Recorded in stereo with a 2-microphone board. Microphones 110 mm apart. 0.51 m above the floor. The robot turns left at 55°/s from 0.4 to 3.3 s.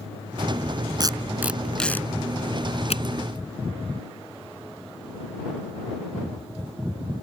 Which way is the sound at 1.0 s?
40° right (ahead or behind).